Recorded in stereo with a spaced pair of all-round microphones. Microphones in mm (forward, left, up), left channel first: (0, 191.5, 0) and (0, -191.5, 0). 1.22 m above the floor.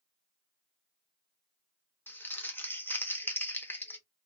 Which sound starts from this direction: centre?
Crumpling, at 2.1 s.